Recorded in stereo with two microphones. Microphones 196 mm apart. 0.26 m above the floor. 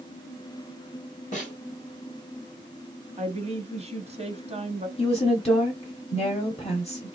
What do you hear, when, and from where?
1.3 s a snare drum: 40° left (ahead or behind), 2.5 m
3.2 s a woman speaking: 35° right (ahead or behind), 1.2 m
5.0 s a woman speaking: 30° left (ahead or behind), 1.1 m